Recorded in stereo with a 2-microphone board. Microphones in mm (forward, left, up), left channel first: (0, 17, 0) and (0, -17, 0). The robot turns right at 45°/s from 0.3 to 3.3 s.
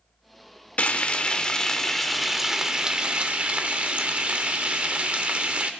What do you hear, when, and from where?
0.8 s frying: 120° left, 0.7 m; by 5.7 s 130° right, 0.7 m